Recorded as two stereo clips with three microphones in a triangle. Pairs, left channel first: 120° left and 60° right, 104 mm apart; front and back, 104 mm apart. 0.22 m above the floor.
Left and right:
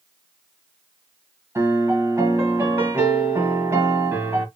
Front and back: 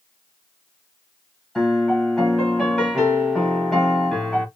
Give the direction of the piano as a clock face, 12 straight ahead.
3 o'clock.